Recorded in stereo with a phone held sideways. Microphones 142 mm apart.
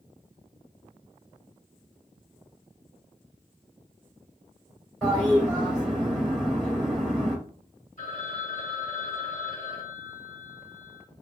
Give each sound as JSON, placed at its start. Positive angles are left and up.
{"t": 5.0, "sound": "a toilet flushing", "side_deg": 0, "distance_m": 1.9}
{"t": 8.0, "sound": "a phone ringing", "side_deg": 55, "distance_m": 1.4}